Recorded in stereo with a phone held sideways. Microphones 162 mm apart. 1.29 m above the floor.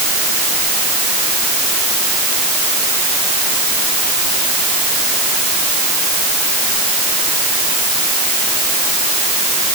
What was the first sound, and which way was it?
Only background noise.